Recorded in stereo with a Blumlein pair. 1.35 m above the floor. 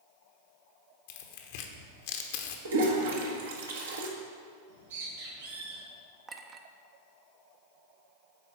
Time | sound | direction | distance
1.1 | tearing paper | 50° left | 1.0 m
2.6 | a toilet flushing | 60° right | 1.3 m
4.7 | a bird | 65° right | 3 m
6.3 | a clink | 20° right | 0.7 m